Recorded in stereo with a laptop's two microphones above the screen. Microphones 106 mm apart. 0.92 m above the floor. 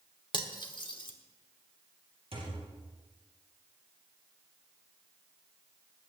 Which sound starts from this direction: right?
A thud, at 2.3 s.